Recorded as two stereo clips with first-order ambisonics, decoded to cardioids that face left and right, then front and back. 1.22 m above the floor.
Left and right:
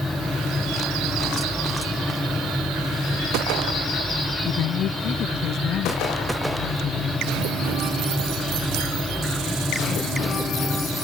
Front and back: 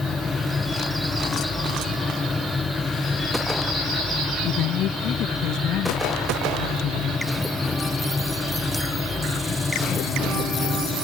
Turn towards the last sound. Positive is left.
turn(degrees=45)